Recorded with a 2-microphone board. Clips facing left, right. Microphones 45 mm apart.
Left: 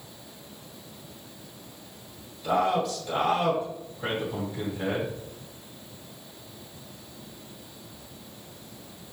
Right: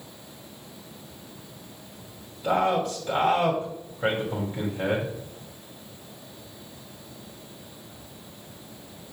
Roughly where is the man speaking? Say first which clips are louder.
Right 1 dB; right.